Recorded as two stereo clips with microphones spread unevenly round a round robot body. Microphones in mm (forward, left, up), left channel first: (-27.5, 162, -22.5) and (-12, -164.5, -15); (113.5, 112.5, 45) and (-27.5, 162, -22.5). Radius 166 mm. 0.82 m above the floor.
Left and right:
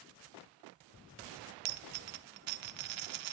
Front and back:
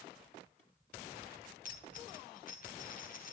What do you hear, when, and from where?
1.6 s a dropped coin: 85° right, 0.9 m